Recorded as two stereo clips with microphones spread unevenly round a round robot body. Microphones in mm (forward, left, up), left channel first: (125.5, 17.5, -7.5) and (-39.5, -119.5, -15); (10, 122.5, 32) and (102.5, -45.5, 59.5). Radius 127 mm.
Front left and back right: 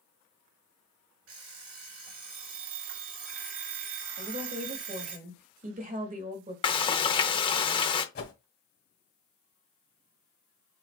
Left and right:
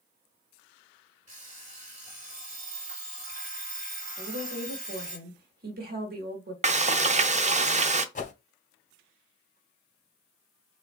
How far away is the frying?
About 0.7 m.